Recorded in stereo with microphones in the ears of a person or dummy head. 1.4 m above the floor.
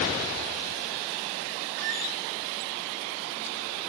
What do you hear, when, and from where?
1.8 s a squeak: 65° right (ahead or behind), 7 m